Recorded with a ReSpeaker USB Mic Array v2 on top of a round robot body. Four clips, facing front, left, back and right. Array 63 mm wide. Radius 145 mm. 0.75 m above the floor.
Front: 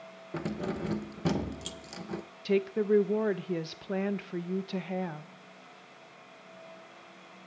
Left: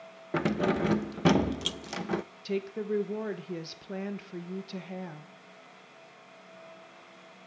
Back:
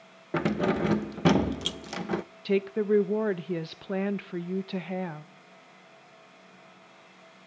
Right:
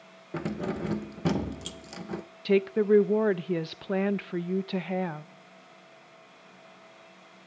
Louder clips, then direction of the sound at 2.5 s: Right 10 dB, back 1 dB; 105° right.